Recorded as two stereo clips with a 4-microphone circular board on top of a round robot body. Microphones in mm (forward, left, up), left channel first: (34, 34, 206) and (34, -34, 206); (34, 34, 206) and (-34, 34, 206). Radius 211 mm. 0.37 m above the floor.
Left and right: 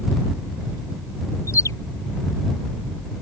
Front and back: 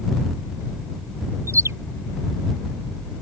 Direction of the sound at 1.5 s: 135° left.